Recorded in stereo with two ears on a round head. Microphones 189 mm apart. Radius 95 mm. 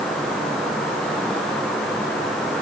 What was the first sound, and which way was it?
Only background noise.